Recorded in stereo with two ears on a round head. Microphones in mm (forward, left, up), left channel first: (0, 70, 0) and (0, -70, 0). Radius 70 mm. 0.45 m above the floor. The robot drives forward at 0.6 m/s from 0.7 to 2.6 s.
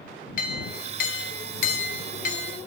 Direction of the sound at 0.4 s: 60° left (ahead or behind).